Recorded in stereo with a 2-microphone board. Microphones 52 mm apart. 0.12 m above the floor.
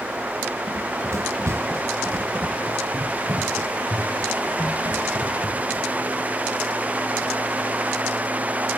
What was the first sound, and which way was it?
Running footsteps, 75° right (ahead or behind).